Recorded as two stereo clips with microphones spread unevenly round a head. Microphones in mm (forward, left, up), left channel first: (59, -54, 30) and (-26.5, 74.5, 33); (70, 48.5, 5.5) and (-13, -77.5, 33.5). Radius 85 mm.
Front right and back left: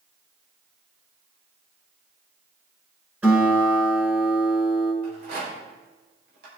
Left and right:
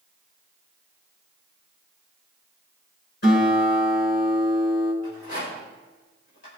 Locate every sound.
3.2 s a guitar: 45° left, 6.5 m
5.0 s a rattle: 100° left, 5.5 m